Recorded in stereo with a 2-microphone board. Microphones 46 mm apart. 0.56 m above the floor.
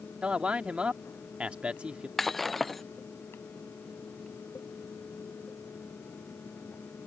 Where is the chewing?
No chewing in this recording.